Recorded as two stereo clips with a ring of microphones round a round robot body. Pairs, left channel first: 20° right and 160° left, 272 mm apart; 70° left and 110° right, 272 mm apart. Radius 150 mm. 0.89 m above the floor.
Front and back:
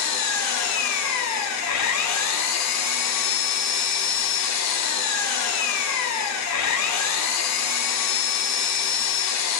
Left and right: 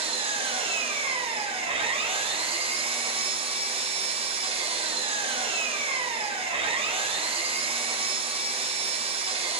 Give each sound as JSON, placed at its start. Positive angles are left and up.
{"t": 0.0, "sound": "an engine running", "azimuth_deg": -45, "distance_m": 0.8}